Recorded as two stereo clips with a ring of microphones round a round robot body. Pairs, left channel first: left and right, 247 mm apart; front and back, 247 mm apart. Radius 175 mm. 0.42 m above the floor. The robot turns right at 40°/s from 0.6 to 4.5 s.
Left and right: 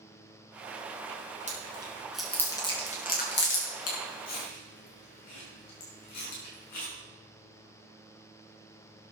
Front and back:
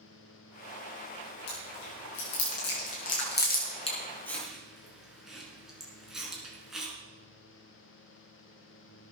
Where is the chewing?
30° right, 6.5 m; by 6.9 s 90° left, 6.5 m.